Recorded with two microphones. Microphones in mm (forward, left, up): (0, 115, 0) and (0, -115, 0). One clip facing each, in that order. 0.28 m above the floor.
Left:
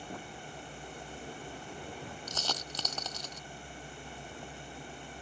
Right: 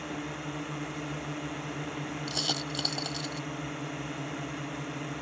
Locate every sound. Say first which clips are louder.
0.0 s a drone: right 9 dB; 75° right (ahead or behind)
2.3 s a dropped coin: right 7 dB; 10° right (ahead or behind)